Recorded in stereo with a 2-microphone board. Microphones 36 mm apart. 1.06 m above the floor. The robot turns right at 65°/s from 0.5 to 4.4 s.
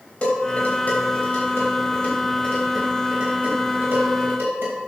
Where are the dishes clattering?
35° left (ahead or behind), 3.5 m; by 4.8 s 70° right (ahead or behind), 3.5 m.